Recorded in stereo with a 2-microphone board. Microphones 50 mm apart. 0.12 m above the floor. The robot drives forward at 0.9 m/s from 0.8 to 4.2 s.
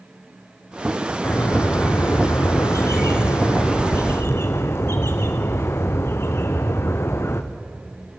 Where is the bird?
45° left (ahead or behind), 2.5 m; by 7.4 s 55° left (ahead or behind), 1.9 m.